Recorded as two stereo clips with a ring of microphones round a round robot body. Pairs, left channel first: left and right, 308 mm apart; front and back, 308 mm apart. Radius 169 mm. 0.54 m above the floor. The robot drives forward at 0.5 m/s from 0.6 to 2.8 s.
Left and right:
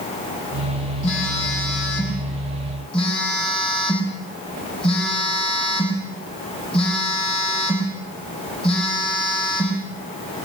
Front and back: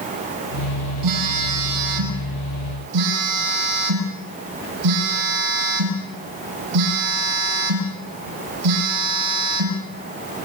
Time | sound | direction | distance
1.0 | a phone buzzing | 160° left | 4.5 m